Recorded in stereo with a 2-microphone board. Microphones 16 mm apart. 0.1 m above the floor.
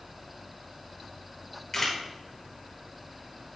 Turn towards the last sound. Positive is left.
turn(degrees=15)  # may be behind; listen again after turning